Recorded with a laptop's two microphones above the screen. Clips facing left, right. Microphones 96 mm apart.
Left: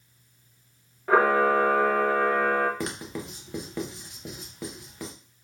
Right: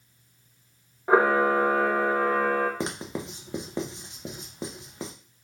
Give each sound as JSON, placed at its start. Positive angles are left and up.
{"t": 1.1, "sound": "a camera shutter", "side_deg": -15, "distance_m": 0.9}
{"t": 2.8, "sound": "writing", "side_deg": -20, "distance_m": 0.7}